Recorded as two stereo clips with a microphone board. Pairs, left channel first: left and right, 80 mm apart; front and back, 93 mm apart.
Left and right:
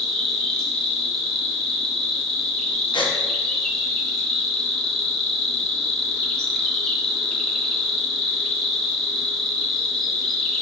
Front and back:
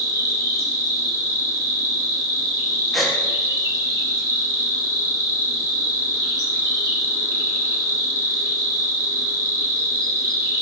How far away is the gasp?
About 1.1 m.